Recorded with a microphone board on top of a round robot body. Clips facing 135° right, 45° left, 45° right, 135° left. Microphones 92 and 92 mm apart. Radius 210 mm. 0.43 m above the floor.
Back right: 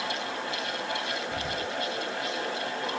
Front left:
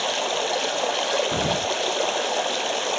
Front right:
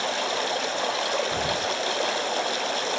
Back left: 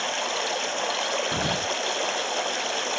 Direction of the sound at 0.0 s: 40° left.